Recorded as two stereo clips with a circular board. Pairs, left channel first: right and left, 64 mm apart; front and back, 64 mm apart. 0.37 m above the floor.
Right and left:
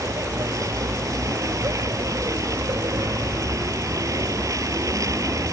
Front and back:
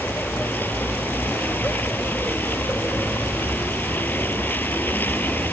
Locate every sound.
0.0 s a vehicle: 60° left